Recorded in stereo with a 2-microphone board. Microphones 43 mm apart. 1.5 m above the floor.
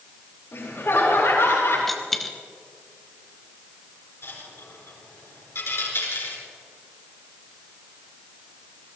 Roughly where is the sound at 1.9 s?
Centre.